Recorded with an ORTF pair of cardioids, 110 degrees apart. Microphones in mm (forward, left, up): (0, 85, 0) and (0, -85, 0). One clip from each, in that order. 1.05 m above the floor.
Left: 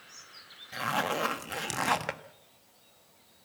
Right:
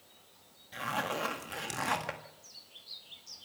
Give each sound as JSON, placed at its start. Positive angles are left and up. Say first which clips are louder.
{"t": 0.7, "sound": "a zipper", "louder": "left 4 dB", "azimuth_deg": 30, "distance_m": 1.6}